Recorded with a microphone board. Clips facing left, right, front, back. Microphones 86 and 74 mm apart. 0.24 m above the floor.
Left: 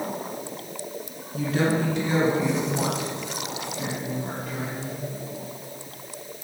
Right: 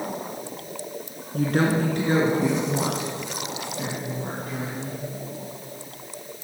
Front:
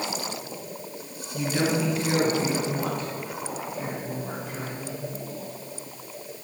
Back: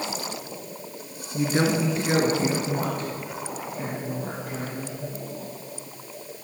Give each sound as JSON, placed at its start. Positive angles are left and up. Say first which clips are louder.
{"t": 1.3, "sound": "a woman speaking", "louder": "right 2 dB, back 2 dB", "azimuth_deg": -120, "distance_m": 2.0}